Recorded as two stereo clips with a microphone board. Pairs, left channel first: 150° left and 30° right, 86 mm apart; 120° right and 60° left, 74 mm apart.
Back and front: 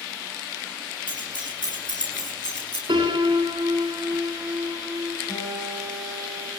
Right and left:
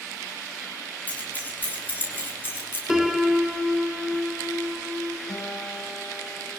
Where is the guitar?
165° right, 9 m.